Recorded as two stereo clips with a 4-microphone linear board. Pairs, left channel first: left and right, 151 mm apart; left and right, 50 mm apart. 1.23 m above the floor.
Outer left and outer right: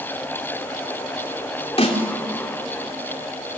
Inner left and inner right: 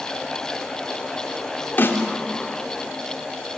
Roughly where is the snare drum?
Left.